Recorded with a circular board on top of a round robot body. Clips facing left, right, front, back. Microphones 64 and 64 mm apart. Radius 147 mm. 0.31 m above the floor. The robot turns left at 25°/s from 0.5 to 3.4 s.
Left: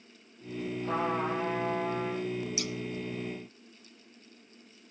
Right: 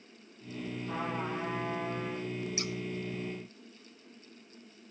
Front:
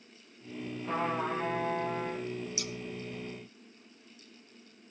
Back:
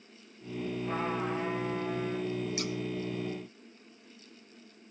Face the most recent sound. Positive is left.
turn(degrees=-160)